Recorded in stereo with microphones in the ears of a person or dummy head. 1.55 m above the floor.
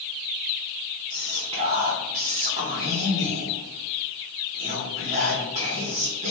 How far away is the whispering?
About 1.0 m.